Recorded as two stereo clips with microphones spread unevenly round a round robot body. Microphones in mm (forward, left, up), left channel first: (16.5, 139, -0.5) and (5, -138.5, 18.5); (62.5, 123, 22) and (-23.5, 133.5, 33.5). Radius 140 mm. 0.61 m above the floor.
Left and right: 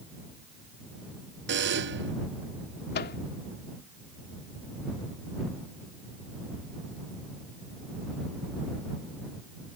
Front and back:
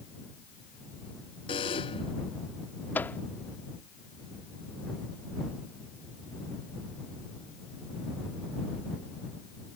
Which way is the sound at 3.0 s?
50° left.